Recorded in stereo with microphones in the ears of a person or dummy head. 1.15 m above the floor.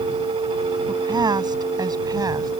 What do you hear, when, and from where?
0.9 s a woman speaking: 20° right (ahead or behind)